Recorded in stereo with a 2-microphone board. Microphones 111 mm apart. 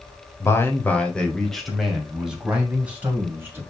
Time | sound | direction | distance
0.4 | a man speaking | 25° left (ahead or behind) | 1.8 m